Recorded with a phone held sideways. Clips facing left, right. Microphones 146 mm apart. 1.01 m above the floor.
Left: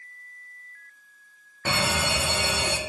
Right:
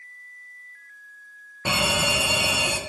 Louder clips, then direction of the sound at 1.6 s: Right 2 dB; 15° right (ahead or behind).